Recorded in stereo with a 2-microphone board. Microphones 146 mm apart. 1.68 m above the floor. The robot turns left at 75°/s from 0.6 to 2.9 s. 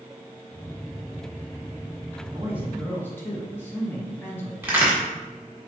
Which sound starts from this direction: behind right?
A man speaking, at 2.2 s.